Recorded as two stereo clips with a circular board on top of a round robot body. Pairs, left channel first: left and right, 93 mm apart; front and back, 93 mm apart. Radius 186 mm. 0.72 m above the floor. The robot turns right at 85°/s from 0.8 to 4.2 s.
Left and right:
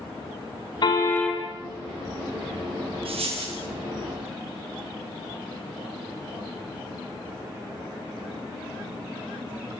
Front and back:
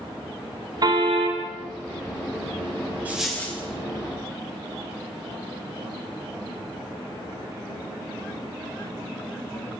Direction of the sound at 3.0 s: 105° right.